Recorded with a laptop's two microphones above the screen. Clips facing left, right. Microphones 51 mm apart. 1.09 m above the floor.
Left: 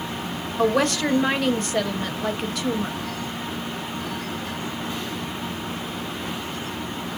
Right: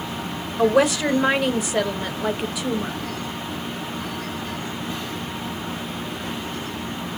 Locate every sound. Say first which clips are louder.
0.6 s a woman speaking: right 3 dB; 5° right (ahead or behind), 1.0 m